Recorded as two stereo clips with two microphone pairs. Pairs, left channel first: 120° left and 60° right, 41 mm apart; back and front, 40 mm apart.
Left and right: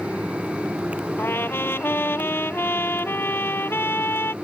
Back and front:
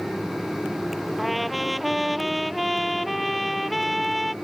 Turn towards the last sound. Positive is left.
turn(degrees=90)